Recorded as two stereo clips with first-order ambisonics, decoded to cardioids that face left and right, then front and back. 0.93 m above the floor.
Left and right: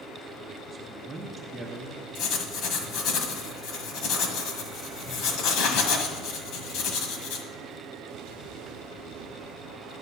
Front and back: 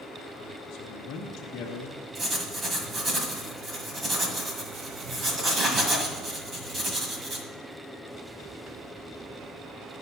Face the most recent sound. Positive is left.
turn(degrees=115)